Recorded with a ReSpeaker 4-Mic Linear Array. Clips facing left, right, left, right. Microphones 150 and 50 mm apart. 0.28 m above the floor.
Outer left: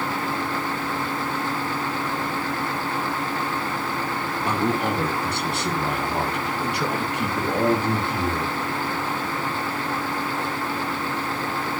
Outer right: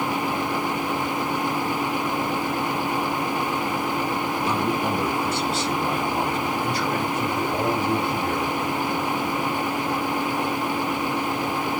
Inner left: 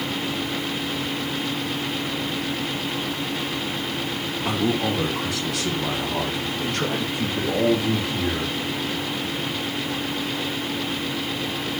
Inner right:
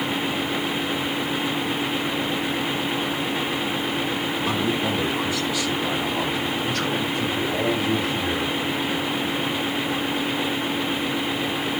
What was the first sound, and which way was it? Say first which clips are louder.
A man speaking: outer left 3 dB, inner left 3 dB; 55° left (ahead or behind).